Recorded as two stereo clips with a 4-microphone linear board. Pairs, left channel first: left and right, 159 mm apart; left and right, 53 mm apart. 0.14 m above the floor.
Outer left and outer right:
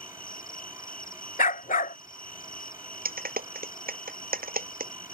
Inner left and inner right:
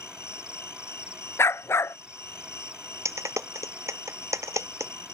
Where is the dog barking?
60° left (ahead or behind).